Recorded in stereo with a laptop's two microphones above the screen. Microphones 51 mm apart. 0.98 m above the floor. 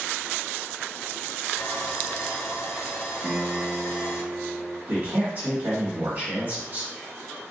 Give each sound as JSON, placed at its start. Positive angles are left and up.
{"t": 1.6, "sound": "sawing", "side_deg": 55, "distance_m": 0.7}
{"t": 3.2, "sound": "a piano", "side_deg": -25, "distance_m": 1.2}
{"t": 4.9, "sound": "a man speaking", "side_deg": -35, "distance_m": 1.6}